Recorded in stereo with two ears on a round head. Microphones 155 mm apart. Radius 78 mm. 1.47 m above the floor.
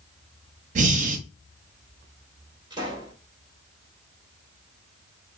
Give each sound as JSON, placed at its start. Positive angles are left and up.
{"t": 0.8, "sound": "breathing", "side_deg": -45, "distance_m": 0.7}
{"t": 2.7, "sound": "a pop", "side_deg": -25, "distance_m": 3.0}